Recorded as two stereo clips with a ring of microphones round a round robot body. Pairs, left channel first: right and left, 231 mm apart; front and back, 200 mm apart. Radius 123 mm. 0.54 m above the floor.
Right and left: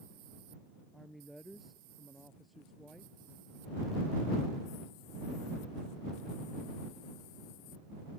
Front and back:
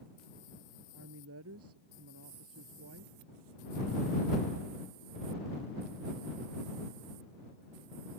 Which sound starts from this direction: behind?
A woman speaking, at 0.9 s.